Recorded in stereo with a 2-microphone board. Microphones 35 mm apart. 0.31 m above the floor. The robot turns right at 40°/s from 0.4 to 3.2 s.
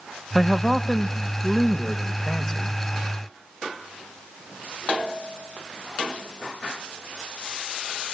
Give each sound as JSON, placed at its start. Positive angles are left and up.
{"t": 0.3, "sound": "a man speaking", "side_deg": -5, "distance_m": 0.9}